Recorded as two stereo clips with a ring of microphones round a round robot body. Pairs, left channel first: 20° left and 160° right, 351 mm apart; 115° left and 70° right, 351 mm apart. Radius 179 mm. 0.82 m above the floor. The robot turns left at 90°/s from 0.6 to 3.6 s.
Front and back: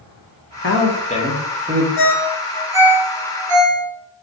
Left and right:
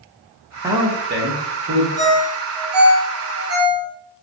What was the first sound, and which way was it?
A man speaking, 10° left.